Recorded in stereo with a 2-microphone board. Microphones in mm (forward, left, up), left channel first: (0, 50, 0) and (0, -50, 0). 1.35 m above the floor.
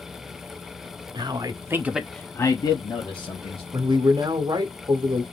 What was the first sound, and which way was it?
A man speaking, 50° right (ahead or behind).